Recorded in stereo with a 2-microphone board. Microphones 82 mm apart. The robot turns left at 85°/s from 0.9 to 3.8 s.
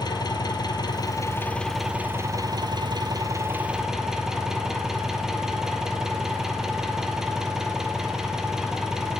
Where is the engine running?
70° left, 0.8 m; by 9.2 s 175° right, 0.8 m.